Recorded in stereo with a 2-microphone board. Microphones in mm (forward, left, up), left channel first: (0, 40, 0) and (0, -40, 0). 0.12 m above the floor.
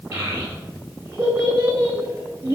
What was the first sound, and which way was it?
A child speaking, 25° right (ahead or behind).